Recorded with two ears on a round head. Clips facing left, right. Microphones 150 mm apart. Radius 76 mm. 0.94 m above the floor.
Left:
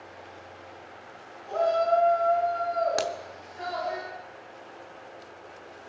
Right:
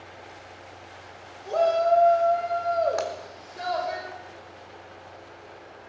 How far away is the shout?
About 3.5 m.